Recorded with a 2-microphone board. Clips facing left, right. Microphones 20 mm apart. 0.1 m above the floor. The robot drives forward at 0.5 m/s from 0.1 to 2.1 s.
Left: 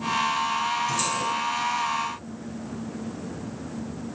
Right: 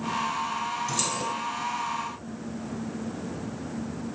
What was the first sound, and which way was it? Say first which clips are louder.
Keys jangling: left 3 dB; 30° right (ahead or behind).